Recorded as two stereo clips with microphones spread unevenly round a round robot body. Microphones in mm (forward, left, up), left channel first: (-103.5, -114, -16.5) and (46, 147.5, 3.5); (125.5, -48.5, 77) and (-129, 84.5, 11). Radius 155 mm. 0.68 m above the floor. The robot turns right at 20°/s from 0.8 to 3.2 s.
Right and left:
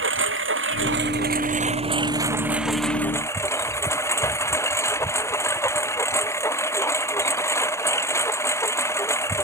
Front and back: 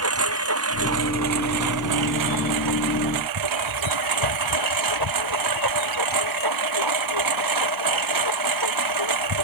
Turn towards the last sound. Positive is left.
turn(degrees=160)